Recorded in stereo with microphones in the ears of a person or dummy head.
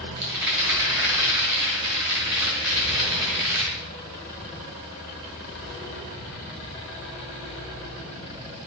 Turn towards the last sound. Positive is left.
turn(degrees=-20)  # may be behind; listen again after turning